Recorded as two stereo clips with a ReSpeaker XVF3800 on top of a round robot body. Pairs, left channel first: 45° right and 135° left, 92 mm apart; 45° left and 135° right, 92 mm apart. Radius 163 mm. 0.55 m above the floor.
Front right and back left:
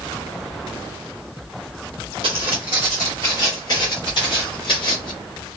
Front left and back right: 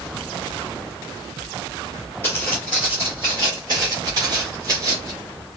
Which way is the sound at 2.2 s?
110° left.